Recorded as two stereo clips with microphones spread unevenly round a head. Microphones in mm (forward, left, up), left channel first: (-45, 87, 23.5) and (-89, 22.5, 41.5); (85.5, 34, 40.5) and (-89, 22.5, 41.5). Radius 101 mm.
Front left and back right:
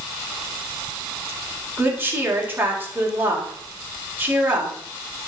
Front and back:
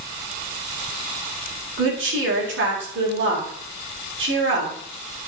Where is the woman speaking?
165° left, 4 m.